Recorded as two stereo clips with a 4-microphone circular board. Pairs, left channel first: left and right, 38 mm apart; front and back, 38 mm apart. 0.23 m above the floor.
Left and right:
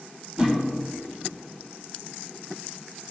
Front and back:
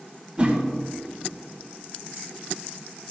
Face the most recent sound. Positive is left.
turn(degrees=-140)